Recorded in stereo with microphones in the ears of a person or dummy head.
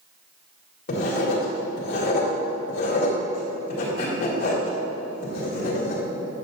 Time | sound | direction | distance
0.9 | writing | 55° left (ahead or behind) | 2.5 m